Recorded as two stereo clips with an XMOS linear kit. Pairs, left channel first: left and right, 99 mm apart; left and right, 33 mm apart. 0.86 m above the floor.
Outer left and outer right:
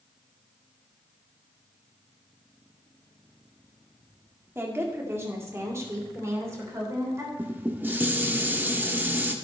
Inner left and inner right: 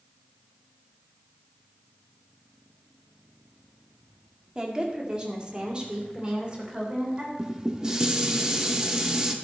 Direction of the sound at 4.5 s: 25° right (ahead or behind).